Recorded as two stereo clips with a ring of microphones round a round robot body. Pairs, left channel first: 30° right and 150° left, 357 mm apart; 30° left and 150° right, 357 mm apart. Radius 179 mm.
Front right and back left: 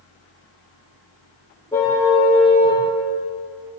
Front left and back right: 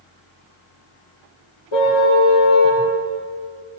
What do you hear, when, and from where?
1.7 s a car horn: 55° left, 9.5 m; by 2.8 s 60° left, 10 m